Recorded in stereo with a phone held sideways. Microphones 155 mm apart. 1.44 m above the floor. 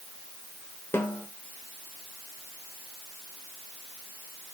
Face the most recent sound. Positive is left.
turn(degrees=15)  # may be behind; listen again after turning